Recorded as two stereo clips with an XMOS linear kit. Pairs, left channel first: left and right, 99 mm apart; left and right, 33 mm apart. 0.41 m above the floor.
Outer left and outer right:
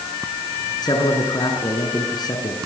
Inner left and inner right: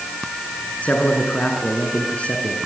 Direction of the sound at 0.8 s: 45° left (ahead or behind).